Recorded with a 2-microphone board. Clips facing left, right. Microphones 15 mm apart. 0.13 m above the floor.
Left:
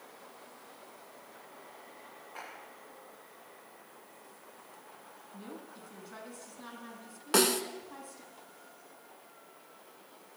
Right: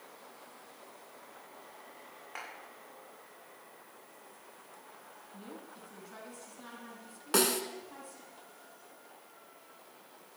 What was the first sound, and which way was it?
A clap, 60° right (ahead or behind).